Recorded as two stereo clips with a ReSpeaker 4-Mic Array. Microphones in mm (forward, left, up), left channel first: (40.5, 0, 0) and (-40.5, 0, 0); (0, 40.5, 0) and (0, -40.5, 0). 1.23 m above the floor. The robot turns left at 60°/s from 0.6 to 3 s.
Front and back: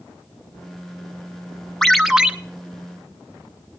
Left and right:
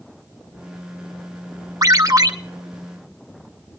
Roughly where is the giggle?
No giggle in this recording.